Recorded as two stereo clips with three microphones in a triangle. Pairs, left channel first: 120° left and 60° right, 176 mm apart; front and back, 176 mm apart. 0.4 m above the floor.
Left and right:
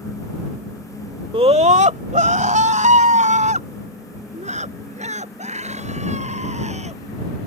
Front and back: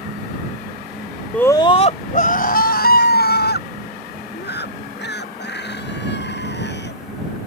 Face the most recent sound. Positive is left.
turn(degrees=-10)